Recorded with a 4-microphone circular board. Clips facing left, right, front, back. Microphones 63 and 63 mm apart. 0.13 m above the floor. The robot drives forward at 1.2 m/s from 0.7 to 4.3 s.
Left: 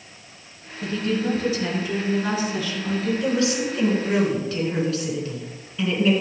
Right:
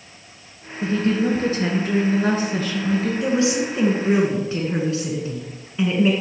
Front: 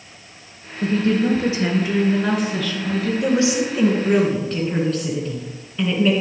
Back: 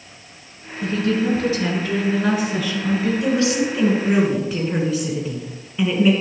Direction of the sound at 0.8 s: 40° right.